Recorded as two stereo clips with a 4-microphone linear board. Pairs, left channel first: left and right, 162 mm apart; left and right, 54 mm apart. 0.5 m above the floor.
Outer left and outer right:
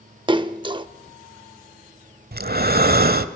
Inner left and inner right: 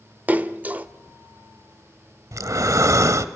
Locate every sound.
0.3 s a splash: 30° right (ahead or behind), 0.7 m
2.3 s breathing: 75° right (ahead or behind), 1.0 m